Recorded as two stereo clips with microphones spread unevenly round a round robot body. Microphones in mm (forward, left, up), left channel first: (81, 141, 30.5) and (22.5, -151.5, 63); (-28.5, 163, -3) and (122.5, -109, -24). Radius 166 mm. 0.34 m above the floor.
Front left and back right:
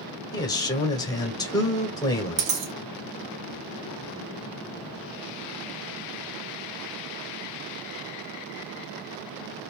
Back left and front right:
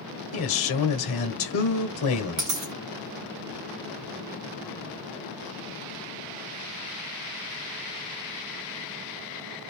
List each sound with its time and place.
0.3 s a man speaking: 140° left, 1.3 m
2.4 s a dropped coin: 105° right, 1.3 m